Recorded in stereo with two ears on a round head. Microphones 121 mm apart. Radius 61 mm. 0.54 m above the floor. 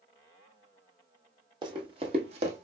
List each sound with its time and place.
1.6 s running footsteps: 35° right (ahead or behind), 1.4 m; by 2.6 s 55° right (ahead or behind), 1.4 m